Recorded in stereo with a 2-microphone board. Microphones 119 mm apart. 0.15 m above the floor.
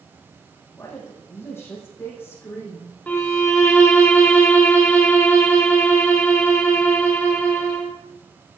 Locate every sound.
0.8 s a woman speaking: 25° left (ahead or behind), 6.5 m; by 3.0 s 20° left (ahead or behind), 5.5 m
3.1 s a violin: 15° left (ahead or behind), 3 m